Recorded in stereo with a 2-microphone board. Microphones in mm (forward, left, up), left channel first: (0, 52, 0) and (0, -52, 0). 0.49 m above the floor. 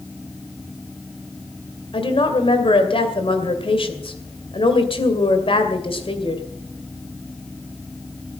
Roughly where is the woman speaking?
Left.